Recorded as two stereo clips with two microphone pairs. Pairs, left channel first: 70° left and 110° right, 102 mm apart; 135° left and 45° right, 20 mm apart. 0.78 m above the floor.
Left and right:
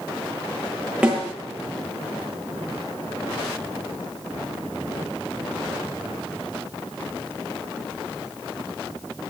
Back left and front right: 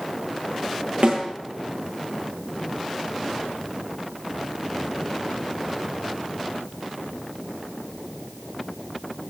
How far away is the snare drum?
About 9 m.